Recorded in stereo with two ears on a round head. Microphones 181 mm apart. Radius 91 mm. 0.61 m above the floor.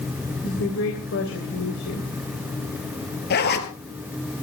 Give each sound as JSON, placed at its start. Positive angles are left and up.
{"t": 0.4, "sound": "a woman speaking", "side_deg": 65, "distance_m": 3.5}
{"t": 3.3, "sound": "a zipper", "side_deg": 55, "distance_m": 2.0}